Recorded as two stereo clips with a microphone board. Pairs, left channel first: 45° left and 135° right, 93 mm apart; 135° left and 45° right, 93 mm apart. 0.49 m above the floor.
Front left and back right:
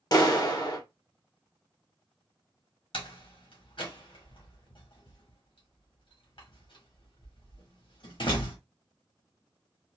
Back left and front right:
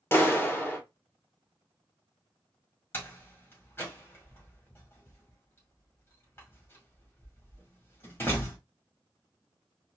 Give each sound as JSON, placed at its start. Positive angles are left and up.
{"t": 0.1, "sound": "a clap", "azimuth_deg": 75, "distance_m": 1.2}
{"t": 2.9, "sound": "a door slam", "azimuth_deg": 70, "distance_m": 1.8}